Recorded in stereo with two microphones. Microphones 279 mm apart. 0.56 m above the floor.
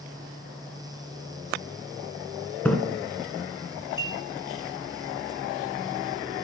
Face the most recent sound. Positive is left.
turn(degrees=-10)  # may be behind; listen again after turning